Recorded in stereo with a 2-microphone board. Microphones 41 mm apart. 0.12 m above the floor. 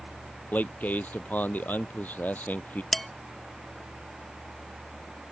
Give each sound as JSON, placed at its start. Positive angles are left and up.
{"t": 0.5, "sound": "a man speaking", "side_deg": 45}
{"t": 2.9, "sound": "dishes clattering", "side_deg": 5}